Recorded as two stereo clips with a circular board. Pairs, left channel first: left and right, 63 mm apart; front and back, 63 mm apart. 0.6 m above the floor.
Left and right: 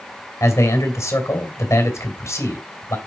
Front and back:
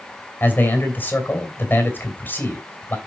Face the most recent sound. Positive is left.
turn(degrees=55)